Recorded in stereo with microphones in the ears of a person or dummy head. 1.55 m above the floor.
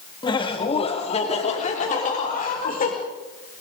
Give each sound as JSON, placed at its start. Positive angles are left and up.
{"t": 0.2, "sound": "laughter", "side_deg": 25, "distance_m": 3.0}